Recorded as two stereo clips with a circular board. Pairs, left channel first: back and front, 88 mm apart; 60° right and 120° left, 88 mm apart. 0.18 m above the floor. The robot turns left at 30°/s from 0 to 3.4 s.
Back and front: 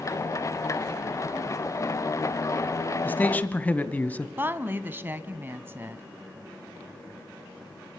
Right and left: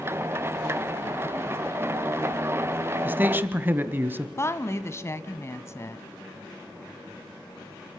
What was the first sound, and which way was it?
A man speaking, 150° left.